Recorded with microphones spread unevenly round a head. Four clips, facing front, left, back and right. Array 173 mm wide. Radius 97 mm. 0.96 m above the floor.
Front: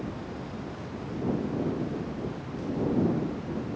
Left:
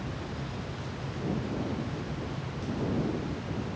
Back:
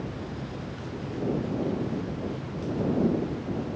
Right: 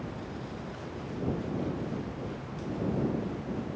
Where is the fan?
170° left.